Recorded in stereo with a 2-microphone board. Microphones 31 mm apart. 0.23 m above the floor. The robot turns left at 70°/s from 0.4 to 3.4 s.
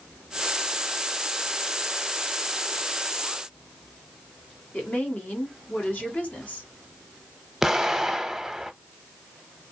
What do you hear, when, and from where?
4.7 s a woman speaking: 55° left (ahead or behind), 1.6 m
7.6 s an explosion: 15° right (ahead or behind), 0.5 m